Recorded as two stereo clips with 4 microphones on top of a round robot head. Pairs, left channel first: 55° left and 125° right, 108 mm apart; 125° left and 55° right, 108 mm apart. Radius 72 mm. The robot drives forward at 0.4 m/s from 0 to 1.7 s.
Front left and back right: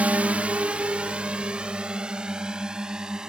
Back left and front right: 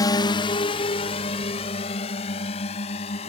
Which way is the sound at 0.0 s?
165° left.